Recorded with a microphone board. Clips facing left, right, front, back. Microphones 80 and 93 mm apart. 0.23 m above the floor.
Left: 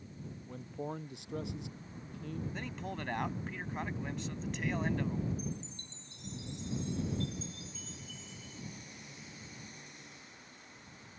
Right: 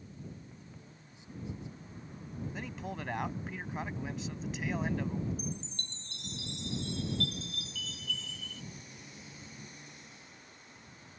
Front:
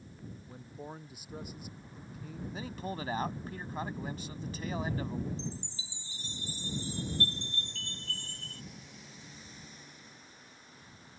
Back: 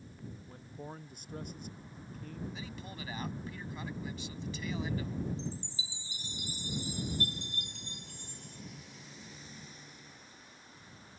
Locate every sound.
0.5 s a man speaking: 85° left
2.5 s a man speaking: 5° right
5.4 s a chime: 105° right